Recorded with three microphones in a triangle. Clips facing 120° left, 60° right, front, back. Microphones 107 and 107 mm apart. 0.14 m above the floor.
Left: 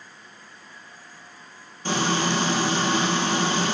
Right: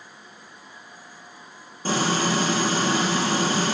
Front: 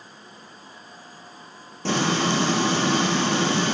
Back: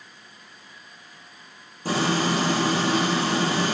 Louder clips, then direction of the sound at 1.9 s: Right 1 dB, front 1 dB; 5° right.